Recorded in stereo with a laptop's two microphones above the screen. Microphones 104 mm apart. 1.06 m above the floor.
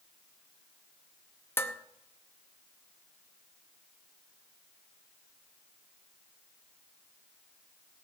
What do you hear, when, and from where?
1.6 s dishes clattering: 20° left (ahead or behind), 0.7 m